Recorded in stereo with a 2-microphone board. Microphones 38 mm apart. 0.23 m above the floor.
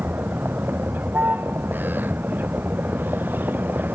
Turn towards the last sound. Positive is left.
turn(degrees=-55)  # may be behind; listen again after turning